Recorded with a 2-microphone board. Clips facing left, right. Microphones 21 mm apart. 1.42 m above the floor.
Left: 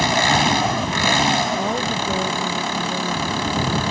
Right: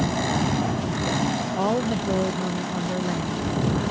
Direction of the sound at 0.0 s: 50° left (ahead or behind).